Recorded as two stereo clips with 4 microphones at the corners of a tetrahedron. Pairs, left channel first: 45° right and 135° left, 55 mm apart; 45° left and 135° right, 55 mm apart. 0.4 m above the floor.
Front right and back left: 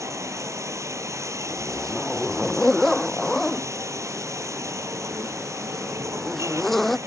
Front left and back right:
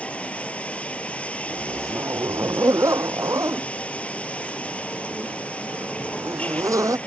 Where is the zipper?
130° right.